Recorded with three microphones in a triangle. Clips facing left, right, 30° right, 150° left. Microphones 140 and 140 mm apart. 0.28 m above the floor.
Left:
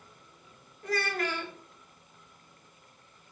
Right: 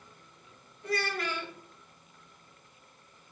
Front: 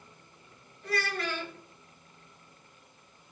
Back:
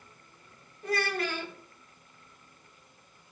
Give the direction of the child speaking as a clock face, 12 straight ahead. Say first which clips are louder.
Left 1 dB, back 2 dB; 8 o'clock.